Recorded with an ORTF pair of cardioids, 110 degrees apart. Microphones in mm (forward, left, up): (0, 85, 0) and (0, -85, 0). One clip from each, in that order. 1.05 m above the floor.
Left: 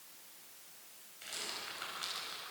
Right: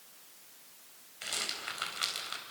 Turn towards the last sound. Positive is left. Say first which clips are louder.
# right 6 dB
turn(degrees=-55)